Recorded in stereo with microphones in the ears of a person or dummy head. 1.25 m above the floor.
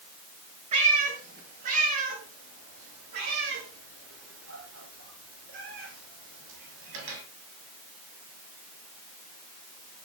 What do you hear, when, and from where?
0.7 s a cat meowing: 45° right (ahead or behind), 6 m; by 7.2 s 70° right (ahead or behind), 8 m